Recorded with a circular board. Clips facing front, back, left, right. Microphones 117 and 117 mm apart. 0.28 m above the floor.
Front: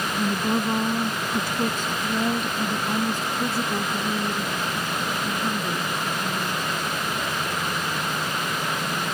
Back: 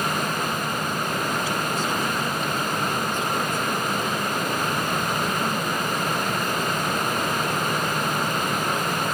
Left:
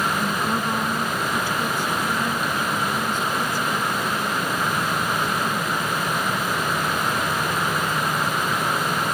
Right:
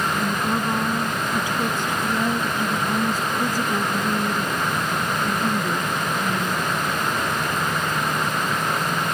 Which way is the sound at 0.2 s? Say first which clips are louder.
Front 3 dB, right 1 dB; 5° right.